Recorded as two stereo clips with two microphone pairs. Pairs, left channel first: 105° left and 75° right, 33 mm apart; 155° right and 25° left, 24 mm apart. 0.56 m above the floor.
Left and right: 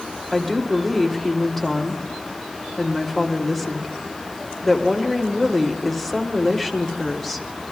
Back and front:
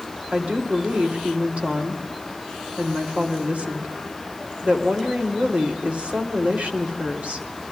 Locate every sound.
0.3 s a woman speaking: 20° left, 2 m